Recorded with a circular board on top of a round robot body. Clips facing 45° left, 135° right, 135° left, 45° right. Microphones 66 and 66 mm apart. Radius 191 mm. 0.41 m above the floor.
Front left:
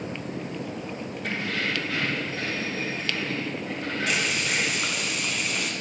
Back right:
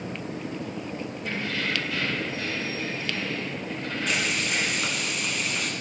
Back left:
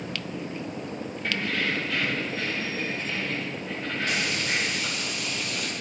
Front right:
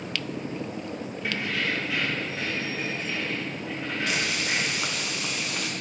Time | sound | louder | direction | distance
1.2 | keys jangling | front left 1 dB, back left 1 dB | 40° left | 6 m
4.1 | frying | even, even | 40° right | 2.5 m